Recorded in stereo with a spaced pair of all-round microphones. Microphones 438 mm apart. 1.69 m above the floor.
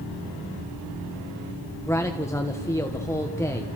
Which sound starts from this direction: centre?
A man speaking, at 1.9 s.